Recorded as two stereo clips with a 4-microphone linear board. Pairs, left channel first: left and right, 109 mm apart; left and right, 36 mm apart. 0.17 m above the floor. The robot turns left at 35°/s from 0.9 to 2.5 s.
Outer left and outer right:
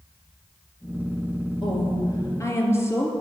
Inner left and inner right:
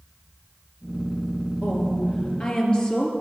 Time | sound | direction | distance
1.6 | a woman speaking | 55° left | 3 m